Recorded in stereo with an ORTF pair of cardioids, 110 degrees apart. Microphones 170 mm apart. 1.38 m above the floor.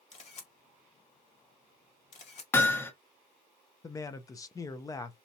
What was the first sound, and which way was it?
A camera shutter, 40° left.